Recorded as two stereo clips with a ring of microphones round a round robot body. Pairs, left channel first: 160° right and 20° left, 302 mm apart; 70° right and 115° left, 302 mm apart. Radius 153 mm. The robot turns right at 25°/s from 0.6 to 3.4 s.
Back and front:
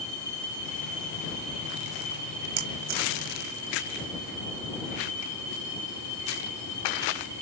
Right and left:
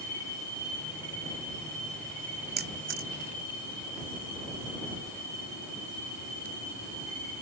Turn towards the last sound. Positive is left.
turn(degrees=75)